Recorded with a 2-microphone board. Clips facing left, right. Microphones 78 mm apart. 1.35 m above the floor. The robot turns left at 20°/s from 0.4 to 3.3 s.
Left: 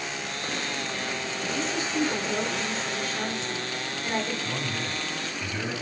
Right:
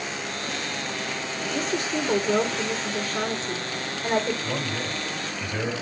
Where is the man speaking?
55° right (ahead or behind), 5 m.